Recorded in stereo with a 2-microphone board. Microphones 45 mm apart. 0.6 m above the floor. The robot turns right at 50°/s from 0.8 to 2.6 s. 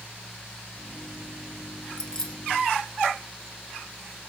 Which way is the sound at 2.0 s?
20° left (ahead or behind).